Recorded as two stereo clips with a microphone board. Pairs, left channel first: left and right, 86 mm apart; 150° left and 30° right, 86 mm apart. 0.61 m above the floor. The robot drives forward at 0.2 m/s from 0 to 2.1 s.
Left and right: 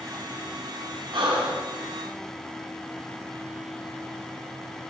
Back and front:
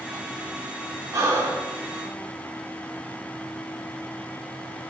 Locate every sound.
1.1 s breathing: 80° right, 0.7 m; by 1.7 s 90° right, 0.7 m